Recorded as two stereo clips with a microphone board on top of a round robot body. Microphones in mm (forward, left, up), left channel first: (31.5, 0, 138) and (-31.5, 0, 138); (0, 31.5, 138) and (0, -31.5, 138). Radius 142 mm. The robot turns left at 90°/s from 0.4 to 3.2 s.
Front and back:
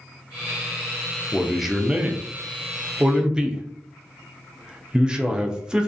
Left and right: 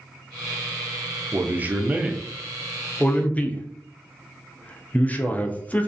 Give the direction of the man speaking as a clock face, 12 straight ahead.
2 o'clock.